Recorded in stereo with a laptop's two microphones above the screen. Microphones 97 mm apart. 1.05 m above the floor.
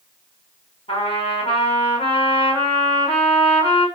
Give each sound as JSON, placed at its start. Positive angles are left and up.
{"t": 0.9, "sound": "a trumpet", "side_deg": 80, "distance_m": 5.5}